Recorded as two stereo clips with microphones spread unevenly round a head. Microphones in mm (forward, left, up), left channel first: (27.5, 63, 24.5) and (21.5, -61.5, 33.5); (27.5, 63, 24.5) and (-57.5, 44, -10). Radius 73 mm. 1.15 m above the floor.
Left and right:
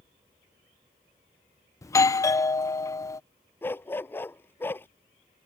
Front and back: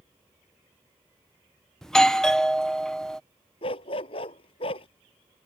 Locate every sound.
1.8 s a doorbell: 125° left
3.6 s a dog barking: 15° left